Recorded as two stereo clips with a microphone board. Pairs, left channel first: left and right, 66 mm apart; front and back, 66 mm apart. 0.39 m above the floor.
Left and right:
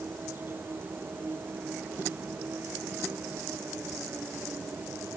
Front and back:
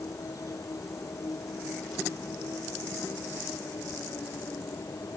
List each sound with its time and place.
0.0 s an insect: 35° right